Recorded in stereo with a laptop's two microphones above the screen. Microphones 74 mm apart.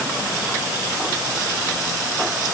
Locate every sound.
Only background noise.